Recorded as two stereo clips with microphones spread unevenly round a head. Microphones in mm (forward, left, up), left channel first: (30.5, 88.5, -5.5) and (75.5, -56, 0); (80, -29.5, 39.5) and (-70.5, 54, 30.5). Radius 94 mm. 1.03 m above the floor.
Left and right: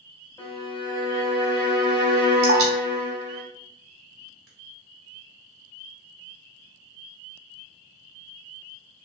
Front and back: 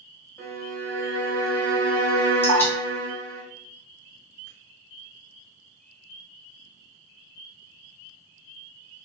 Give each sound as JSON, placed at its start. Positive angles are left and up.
{"t": 0.4, "sound": "a violin", "azimuth_deg": 50, "distance_m": 1.3}
{"t": 2.4, "sound": "dripping", "azimuth_deg": -105, "distance_m": 1.0}